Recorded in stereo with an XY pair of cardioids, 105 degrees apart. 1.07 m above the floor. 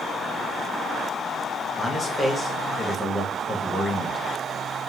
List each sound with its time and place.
1.8 s a man speaking: 20° left, 1.4 m